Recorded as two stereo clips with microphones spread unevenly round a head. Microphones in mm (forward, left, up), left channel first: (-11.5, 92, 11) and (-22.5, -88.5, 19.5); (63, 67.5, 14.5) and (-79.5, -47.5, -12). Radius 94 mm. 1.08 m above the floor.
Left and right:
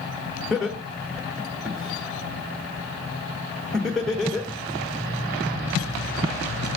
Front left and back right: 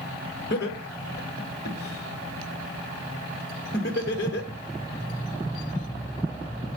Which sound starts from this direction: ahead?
Laughter, at 0.5 s.